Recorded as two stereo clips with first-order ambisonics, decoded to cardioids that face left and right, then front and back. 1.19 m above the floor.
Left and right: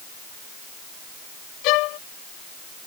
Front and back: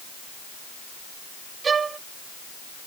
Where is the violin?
110° left.